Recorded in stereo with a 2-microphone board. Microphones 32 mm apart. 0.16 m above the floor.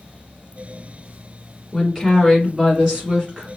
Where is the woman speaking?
Centre (ahead or behind), 1.3 m; by 3.5 s 35° right (ahead or behind), 1.5 m.